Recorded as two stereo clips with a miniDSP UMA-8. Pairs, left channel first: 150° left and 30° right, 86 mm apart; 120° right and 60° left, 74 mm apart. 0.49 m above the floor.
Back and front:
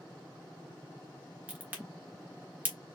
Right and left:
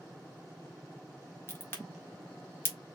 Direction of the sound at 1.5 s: 85° right.